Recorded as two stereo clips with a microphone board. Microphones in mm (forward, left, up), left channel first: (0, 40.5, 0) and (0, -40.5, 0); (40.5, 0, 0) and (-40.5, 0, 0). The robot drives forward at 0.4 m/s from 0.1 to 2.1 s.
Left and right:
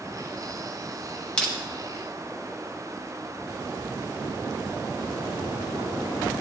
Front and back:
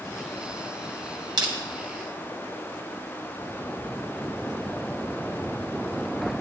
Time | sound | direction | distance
1.4 | crushing | 165° left | 2 m